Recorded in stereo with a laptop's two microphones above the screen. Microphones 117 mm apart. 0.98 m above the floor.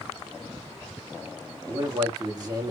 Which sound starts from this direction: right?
A man speaking, at 1.7 s.